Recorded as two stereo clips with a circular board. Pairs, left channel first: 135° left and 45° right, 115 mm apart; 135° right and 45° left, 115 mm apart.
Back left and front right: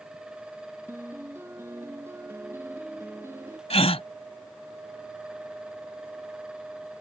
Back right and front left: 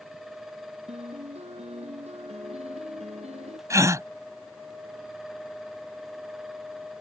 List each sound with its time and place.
0.9 s a piano: 25° left
3.7 s a gasp: 105° left